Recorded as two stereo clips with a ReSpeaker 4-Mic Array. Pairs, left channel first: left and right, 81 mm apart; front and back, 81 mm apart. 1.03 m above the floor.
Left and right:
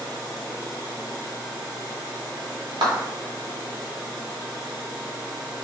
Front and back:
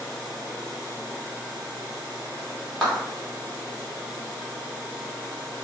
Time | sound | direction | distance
2.8 | a clap | 80° right | 2 m